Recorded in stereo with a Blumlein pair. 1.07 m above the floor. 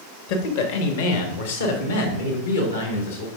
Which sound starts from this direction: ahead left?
A man speaking, at 0.3 s.